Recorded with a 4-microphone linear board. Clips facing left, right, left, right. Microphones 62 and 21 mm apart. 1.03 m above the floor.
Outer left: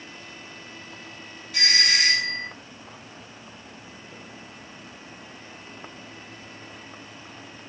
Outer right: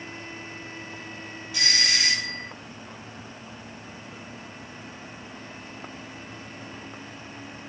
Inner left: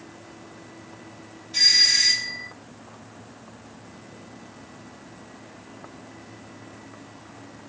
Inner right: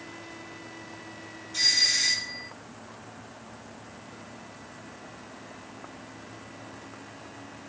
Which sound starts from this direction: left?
A doorbell, at 1.5 s.